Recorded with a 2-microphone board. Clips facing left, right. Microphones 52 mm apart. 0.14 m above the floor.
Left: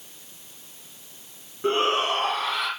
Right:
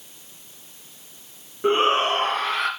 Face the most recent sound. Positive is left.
turn(degrees=-45)  # may be behind; listen again after turning